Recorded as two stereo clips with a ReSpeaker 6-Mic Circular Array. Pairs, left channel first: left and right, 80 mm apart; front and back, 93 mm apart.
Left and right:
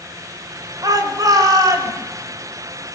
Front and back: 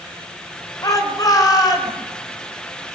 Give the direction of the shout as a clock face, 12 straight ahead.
2 o'clock.